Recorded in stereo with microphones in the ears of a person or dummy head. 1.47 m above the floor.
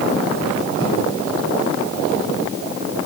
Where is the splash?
70° right (ahead or behind), 7.5 m.